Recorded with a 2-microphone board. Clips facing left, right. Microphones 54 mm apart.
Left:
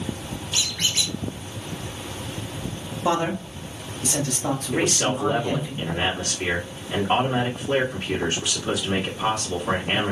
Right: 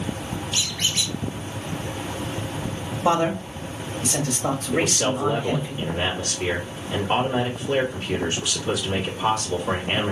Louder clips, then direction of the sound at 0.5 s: Left 2 dB; 5° left (ahead or behind).